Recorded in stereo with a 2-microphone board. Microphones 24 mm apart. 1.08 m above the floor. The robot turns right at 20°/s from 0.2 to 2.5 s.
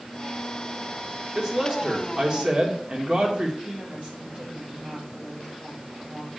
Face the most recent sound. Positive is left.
turn(degrees=-60)  # may be behind; listen again after turning